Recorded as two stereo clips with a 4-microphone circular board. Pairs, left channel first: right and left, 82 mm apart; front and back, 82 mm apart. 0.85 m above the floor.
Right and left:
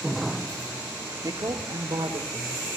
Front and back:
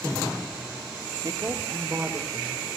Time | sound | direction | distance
1.2 | a woman speaking | 130° left | 1.7 m